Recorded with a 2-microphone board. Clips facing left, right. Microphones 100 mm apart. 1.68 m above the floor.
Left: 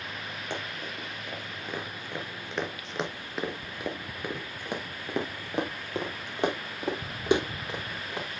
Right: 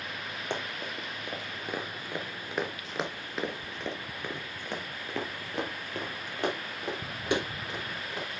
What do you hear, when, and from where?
0.5 s running footsteps: 20° right (ahead or behind), 2.5 m; by 8.3 s 25° left (ahead or behind), 4 m